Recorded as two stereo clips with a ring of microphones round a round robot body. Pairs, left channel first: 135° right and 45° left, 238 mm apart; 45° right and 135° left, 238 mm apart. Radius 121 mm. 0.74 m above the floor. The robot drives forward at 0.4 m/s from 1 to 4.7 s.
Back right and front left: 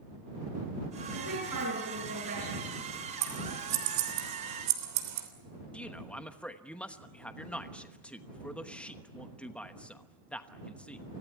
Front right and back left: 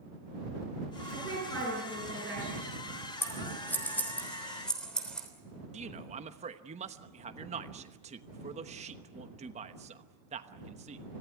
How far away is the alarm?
No alarm in this recording.